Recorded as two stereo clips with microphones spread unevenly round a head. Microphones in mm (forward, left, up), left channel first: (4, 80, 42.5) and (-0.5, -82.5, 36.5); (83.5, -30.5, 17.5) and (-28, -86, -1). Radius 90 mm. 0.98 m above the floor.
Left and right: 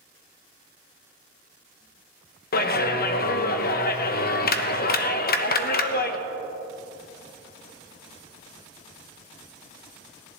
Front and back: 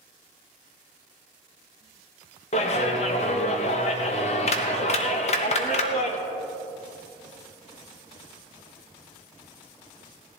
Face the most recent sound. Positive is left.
turn(degrees=75)